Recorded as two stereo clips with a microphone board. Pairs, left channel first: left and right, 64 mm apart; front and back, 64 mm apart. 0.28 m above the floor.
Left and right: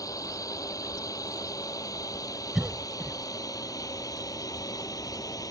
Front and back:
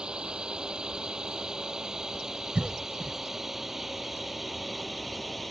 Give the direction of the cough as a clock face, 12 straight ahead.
6 o'clock.